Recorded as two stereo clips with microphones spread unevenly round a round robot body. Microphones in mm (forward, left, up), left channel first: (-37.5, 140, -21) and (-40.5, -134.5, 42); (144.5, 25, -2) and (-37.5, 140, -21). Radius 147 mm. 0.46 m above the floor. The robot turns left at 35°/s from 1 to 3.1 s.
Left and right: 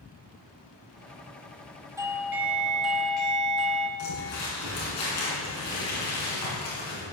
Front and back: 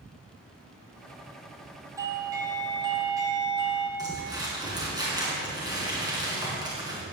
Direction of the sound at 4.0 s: 75° left.